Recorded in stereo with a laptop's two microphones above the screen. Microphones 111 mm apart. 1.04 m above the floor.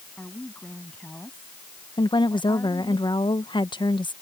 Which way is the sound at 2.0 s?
45° left (ahead or behind).